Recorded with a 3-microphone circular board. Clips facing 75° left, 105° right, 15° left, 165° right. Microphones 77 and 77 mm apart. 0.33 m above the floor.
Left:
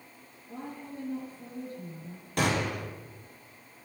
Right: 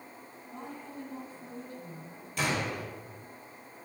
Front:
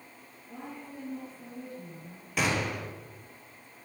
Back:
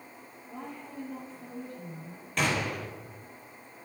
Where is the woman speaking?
100° left, 6.5 m.